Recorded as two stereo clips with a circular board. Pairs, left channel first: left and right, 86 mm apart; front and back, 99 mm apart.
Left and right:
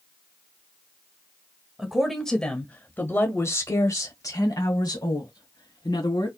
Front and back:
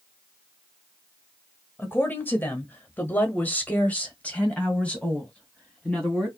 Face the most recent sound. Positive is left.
turn(degrees=80)